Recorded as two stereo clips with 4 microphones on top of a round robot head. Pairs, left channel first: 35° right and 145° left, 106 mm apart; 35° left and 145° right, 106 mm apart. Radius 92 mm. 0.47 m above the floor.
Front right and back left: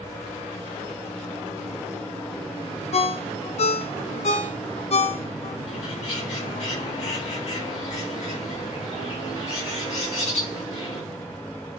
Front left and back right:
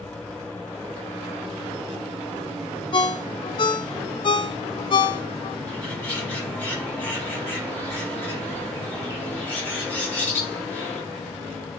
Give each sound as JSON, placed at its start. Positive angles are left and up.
{"t": 2.9, "sound": "a ringtone", "azimuth_deg": -10, "distance_m": 1.0}
{"t": 5.7, "sound": "a bird", "azimuth_deg": -40, "distance_m": 4.5}